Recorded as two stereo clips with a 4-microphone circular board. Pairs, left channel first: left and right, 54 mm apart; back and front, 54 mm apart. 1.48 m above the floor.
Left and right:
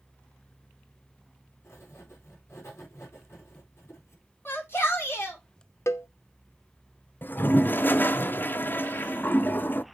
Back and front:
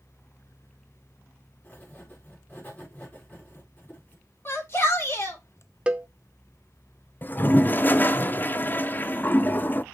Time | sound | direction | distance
1.6 | writing | 125° left | 4 m
4.5 | a shout | 140° left | 3.5 m
5.9 | a cowbell | 70° left | 0.7 m
7.2 | a toilet flushing | 135° left | 0.5 m